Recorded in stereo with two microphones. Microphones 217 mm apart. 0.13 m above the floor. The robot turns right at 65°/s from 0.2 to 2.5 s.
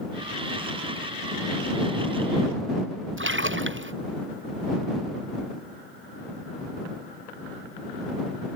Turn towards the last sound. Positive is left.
turn(degrees=-65)  # may be behind; listen again after turning